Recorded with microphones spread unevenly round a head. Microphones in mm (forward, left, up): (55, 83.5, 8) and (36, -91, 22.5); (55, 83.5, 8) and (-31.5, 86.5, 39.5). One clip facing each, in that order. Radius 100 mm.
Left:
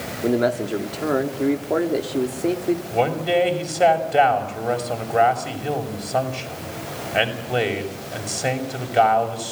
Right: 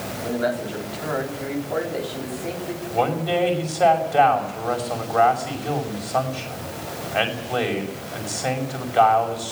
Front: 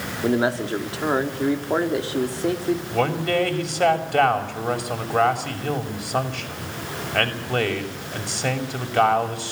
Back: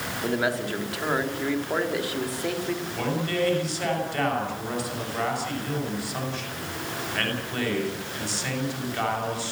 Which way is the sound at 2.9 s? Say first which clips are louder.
Right 1 dB, front 7 dB; 15° left.